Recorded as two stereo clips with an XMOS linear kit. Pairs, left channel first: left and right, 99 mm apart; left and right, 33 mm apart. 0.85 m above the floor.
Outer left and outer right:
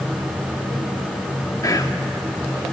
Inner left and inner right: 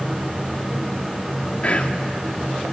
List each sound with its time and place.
1.6 s whispering: 35° left (ahead or behind), 2 m